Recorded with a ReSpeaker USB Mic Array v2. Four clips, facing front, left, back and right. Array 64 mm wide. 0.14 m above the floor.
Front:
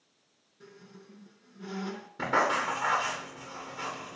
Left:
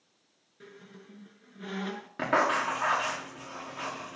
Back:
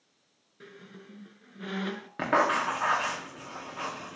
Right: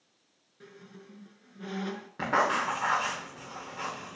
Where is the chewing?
No chewing in this recording.